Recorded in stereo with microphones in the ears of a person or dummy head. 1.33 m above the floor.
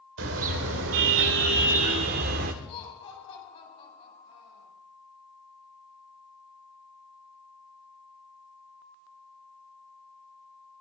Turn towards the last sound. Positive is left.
turn(degrees=30)  # may be behind; listen again after turning